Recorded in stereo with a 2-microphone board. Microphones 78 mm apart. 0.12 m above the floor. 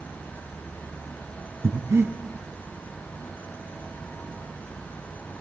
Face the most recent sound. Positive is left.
turn(degrees=-35)  # may be behind; listen again after turning